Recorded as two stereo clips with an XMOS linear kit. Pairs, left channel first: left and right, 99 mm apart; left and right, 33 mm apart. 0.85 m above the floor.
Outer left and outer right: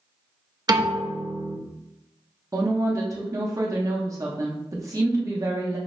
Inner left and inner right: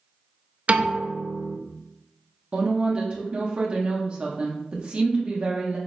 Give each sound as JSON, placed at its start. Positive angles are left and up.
{"t": 0.7, "sound": "a piano", "side_deg": -45, "distance_m": 0.6}
{"t": 2.5, "sound": "a woman speaking", "side_deg": -35, "distance_m": 0.7}